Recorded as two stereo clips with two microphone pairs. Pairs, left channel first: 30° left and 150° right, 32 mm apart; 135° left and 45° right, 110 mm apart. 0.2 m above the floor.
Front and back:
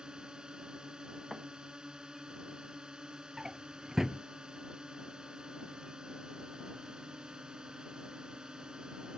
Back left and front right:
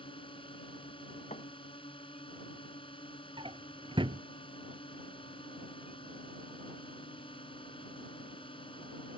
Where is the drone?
150° left.